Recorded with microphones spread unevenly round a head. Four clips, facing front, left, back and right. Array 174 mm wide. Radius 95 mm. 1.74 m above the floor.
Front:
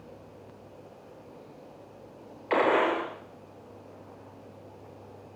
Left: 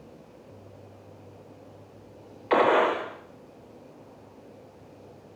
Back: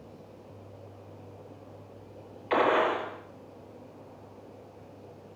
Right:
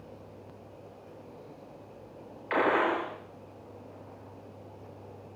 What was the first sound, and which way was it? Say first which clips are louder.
A gunshot: left 5 dB, front 1 dB; 75° left.